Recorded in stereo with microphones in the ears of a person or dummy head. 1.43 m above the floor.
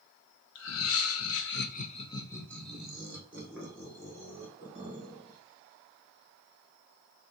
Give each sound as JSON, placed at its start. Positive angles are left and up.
{"t": 0.6, "sound": "laughter", "side_deg": 70, "distance_m": 0.8}